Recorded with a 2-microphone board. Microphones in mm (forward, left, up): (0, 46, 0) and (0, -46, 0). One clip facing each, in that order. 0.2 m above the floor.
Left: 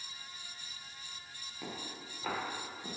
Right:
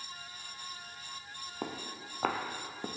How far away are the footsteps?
About 1.8 m.